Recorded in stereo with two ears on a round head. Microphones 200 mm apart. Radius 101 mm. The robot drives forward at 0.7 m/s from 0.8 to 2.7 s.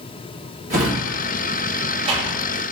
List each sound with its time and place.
0.7 s a drawer: 30° right (ahead or behind), 1.3 m; by 2.4 s 25° right (ahead or behind), 1.5 m